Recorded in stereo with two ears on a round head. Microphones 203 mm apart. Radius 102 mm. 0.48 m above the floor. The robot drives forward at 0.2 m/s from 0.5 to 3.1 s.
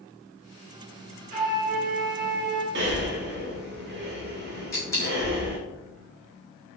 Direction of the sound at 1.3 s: 35° right (ahead or behind).